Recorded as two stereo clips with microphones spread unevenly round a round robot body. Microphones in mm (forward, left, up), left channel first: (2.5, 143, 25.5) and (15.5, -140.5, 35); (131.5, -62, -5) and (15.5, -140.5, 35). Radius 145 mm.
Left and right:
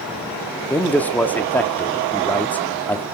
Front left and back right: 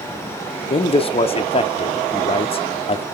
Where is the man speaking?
10° left, 1.0 m.